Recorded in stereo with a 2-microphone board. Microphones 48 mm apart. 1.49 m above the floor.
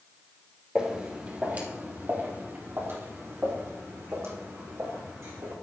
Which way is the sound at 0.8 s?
20° right (ahead or behind).